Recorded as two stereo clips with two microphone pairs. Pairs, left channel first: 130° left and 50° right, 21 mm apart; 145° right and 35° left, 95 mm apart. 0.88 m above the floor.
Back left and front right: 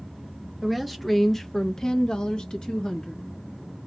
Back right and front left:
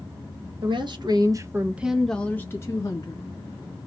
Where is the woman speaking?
40° left, 0.9 m; by 3.3 s 175° left, 1.1 m.